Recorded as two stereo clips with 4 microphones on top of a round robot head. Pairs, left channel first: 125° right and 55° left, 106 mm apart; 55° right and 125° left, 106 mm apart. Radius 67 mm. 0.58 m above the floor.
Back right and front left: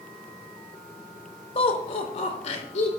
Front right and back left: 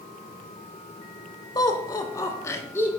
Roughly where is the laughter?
Right.